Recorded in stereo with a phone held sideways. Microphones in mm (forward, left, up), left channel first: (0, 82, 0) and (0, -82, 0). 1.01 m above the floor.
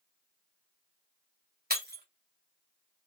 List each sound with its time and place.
1.7 s breaking glass: 75° right (ahead or behind), 1.6 m